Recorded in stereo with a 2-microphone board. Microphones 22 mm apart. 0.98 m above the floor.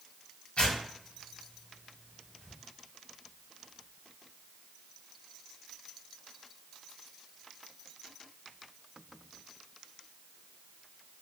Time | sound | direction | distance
0.6 | tearing paper | 60° left (ahead or behind) | 1.1 m